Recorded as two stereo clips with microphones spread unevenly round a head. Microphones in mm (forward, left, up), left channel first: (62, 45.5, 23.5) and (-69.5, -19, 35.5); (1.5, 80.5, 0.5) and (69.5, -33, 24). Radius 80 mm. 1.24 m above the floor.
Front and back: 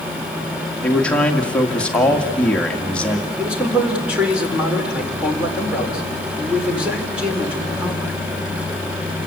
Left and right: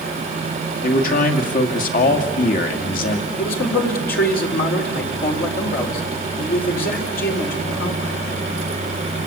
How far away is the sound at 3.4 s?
About 4 m.